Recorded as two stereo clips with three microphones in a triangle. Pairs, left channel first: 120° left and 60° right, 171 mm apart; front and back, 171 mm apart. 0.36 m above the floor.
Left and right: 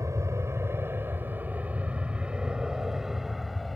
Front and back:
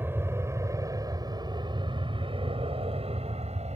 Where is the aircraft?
115° right; by 3.8 s 150° right.